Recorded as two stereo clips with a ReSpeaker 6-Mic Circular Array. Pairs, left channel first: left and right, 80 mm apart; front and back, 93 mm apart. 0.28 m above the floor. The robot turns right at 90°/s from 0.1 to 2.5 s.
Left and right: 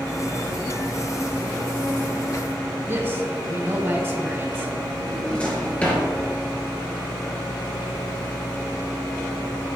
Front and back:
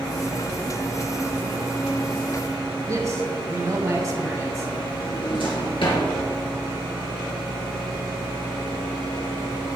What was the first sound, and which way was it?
A man speaking, 140° right.